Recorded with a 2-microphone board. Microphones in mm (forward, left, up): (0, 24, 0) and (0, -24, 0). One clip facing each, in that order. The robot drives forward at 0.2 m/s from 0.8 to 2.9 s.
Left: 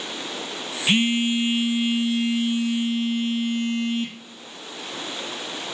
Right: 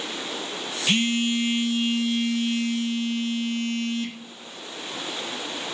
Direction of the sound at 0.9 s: 20° left (ahead or behind).